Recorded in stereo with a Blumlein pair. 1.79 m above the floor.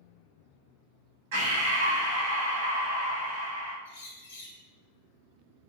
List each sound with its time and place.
1.3 s breathing: 55° right, 1.0 m
3.9 s a bird: 60° left, 0.8 m